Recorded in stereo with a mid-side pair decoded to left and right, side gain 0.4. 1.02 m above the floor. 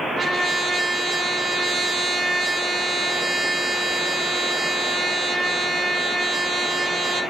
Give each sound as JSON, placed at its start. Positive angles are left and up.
{"t": 0.2, "sound": "a trumpet", "azimuth_deg": -40, "distance_m": 2.5}